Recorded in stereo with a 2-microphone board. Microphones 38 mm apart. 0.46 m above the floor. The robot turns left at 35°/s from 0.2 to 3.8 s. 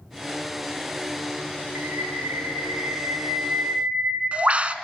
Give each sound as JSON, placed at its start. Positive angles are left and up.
{"t": 1.8, "sound": "a bird", "azimuth_deg": -70, "distance_m": 0.6}